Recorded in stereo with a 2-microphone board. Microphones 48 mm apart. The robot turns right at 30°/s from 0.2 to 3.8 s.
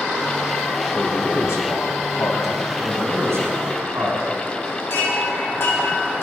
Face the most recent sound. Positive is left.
turn(degrees=60)  # may be behind; listen again after turning